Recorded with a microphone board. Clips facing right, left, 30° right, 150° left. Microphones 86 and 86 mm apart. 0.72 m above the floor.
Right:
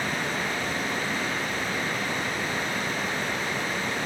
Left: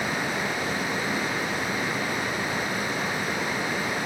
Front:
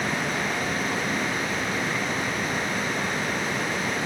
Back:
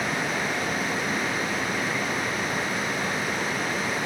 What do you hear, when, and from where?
Only background noise.